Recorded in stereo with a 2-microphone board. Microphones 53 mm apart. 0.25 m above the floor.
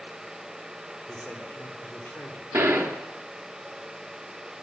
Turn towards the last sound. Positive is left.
turn(degrees=-55)  # may be behind; listen again after turning